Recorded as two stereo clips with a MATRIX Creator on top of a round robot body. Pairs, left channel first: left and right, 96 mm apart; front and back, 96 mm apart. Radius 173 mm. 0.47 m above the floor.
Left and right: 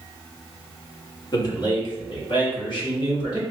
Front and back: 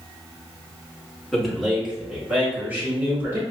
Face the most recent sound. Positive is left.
turn(degrees=115)